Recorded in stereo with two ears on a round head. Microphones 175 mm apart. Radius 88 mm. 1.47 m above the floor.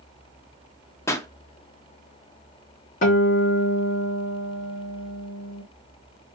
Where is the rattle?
I don't hear a rattle.